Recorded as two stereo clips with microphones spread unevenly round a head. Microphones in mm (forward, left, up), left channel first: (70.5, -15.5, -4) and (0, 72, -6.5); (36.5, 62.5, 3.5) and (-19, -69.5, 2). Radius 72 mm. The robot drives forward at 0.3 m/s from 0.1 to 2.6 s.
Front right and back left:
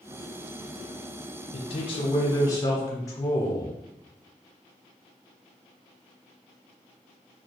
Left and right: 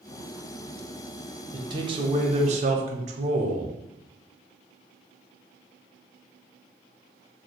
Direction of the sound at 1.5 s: 55° right.